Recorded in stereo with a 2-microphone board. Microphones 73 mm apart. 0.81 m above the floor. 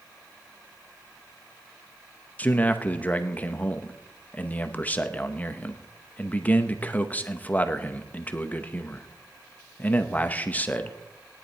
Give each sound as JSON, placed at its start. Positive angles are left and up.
{"t": 2.4, "sound": "a man speaking", "side_deg": 20, "distance_m": 0.8}